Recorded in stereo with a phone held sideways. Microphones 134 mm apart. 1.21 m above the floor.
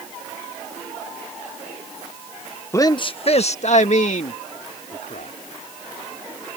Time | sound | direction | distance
2.7 | a man speaking | 20° left (ahead or behind) | ?